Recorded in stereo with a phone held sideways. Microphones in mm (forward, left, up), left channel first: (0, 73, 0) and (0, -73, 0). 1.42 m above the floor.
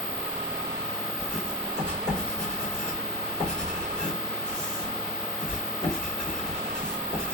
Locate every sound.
1.2 s writing: 45° left (ahead or behind), 2.5 m